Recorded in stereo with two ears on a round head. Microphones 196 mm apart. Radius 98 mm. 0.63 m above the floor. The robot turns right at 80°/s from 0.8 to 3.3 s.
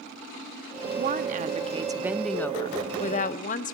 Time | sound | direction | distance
1.0 | a woman speaking | 105° right | 0.8 m